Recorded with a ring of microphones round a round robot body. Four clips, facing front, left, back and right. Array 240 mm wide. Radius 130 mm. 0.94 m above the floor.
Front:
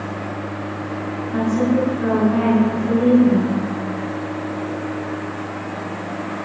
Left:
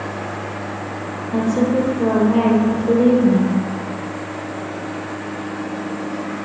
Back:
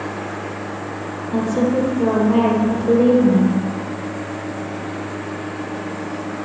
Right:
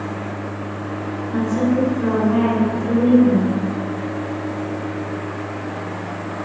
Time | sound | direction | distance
1.3 | a woman speaking | 145° left | 3 m